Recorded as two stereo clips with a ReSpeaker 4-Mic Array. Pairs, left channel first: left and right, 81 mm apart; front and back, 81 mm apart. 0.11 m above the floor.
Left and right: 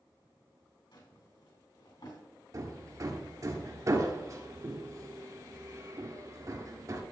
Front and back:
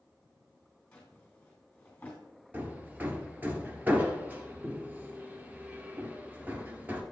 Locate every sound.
0.9 s a drawer: 75° left, 3 m
2.5 s hammering: 120° right, 1.3 m